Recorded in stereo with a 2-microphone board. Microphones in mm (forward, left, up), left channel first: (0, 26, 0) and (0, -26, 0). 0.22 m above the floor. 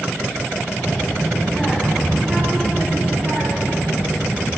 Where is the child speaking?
25° left (ahead or behind), 1.1 m; by 4.5 s 40° right (ahead or behind), 2 m.